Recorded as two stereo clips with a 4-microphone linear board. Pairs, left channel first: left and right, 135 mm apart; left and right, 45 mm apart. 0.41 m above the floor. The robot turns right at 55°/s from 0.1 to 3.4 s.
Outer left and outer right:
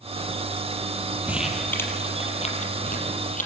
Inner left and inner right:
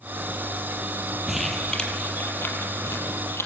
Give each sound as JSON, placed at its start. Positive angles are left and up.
{"t": 1.3, "sound": "crumpling", "side_deg": -10, "distance_m": 5.0}